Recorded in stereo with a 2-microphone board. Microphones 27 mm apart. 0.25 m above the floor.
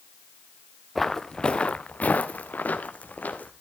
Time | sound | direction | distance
0.9 | footsteps | 10° left (ahead or behind) | 1.2 m